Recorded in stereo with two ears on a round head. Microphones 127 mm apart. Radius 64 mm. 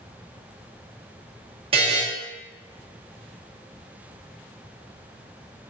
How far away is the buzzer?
About 0.6 m.